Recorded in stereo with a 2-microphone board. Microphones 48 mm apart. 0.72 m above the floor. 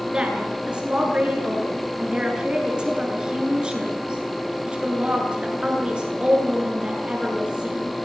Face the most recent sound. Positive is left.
turn(degrees=-20)  # may be behind; listen again after turning